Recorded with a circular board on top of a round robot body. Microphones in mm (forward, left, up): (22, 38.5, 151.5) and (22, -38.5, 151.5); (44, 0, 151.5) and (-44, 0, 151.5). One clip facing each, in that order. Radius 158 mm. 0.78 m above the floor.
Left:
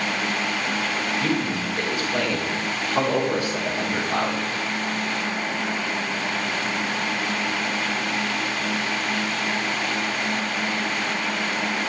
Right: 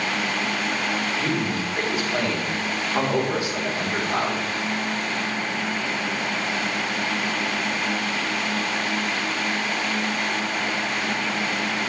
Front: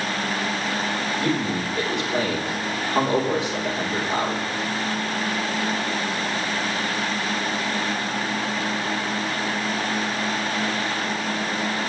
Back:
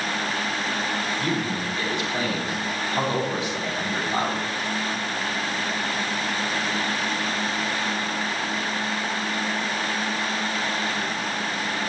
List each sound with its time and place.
1.2 s a man speaking: 20° right, 3.5 m